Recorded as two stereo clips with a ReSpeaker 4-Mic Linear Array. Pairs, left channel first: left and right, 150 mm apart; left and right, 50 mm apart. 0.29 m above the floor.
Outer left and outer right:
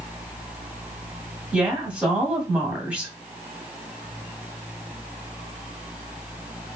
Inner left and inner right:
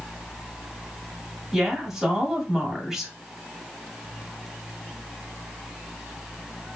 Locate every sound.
1.5 s a woman speaking: 10° right (ahead or behind), 1.4 m